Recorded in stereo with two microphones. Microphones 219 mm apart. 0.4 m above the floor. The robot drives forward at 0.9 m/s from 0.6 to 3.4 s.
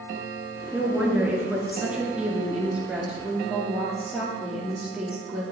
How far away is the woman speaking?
About 5 m.